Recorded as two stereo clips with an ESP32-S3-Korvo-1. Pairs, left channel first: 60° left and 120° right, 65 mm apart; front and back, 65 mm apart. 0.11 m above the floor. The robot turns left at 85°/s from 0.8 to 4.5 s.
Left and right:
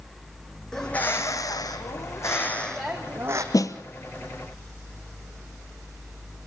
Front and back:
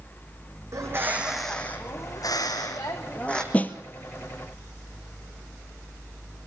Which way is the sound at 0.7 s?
140° left.